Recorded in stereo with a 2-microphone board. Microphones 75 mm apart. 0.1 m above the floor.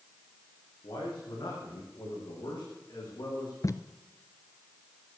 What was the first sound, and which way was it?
A man speaking, 75° left (ahead or behind).